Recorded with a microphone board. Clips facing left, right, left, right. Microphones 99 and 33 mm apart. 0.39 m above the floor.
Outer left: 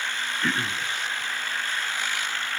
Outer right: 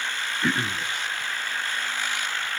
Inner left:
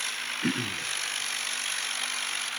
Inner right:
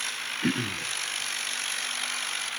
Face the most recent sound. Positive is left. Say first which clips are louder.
# outer right 2 dB, inner right 2 dB
turn(degrees=-10)  # may be behind; listen again after turning